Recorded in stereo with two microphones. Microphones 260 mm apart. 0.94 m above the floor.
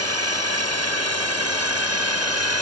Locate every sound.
0.0 s a drone: 70° right (ahead or behind)